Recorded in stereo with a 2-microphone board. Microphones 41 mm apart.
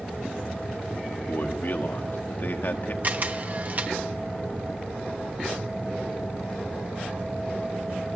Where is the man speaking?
60° left (ahead or behind), 1.8 m.